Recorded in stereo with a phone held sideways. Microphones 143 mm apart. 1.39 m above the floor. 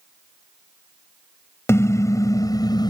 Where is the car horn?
20° left (ahead or behind); by 2.9 s 30° left (ahead or behind).